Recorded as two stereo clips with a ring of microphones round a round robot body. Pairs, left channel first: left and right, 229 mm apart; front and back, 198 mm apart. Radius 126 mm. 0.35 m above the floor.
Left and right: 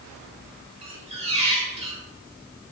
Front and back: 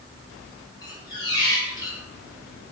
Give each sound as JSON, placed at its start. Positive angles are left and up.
{"t": 0.8, "sound": "a squeak", "azimuth_deg": -55, "distance_m": 0.9}